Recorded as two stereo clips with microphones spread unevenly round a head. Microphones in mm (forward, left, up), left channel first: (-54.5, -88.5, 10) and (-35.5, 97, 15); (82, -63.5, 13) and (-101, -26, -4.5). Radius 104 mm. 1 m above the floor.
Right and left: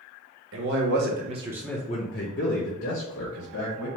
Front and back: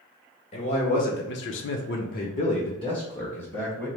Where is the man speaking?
55° left, 1.0 m; by 3.9 s 90° right, 1.7 m.